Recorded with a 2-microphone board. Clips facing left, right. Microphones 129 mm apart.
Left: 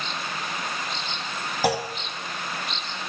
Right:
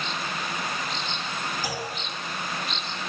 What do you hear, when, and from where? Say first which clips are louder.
1.6 s a clunk: left 8 dB; 70° left (ahead or behind), 1.5 m